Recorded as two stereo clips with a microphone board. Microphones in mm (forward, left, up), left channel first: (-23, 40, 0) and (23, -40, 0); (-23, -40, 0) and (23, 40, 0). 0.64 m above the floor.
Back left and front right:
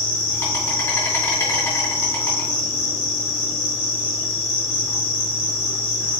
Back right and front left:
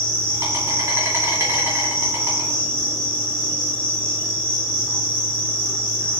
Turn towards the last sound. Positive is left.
turn(degrees=95)